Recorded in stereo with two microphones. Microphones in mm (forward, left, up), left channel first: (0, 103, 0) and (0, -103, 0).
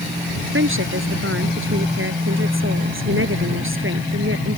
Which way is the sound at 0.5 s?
80° right.